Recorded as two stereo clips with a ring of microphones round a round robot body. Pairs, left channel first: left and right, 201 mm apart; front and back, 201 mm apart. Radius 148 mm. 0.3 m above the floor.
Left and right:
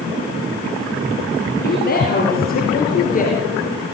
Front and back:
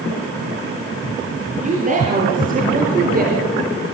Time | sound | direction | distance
1.6 | a woman speaking | 130° left | 8.5 m